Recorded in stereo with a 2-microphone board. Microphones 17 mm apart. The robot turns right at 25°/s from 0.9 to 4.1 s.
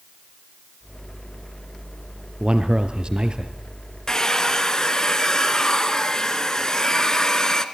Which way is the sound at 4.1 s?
35° left (ahead or behind).